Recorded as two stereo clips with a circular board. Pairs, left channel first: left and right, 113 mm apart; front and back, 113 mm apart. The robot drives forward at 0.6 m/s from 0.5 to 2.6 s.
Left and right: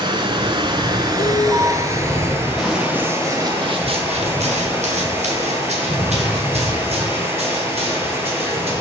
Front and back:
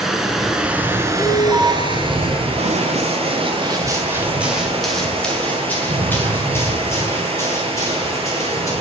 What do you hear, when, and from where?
0.0 s running water: 95° right, 0.8 m; by 8.8 s 155° right, 1.5 m
1.2 s an alarm: 95° right, 2.0 m; by 1.7 s 115° right, 2.0 m
2.6 s running footsteps: straight behind, 1.2 m; by 8.7 s 60° right, 4.5 m